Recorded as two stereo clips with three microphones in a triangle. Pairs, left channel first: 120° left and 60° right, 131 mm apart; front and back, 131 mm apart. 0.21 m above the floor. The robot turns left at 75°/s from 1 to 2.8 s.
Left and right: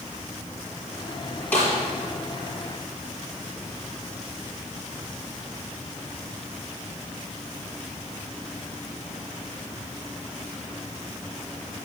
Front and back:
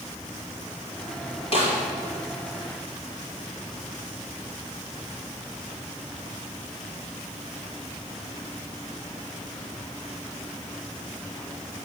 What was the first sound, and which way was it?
A snare drum, 45° left.